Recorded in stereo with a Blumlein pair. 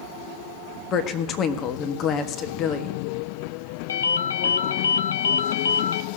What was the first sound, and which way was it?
A woman speaking, 30° left.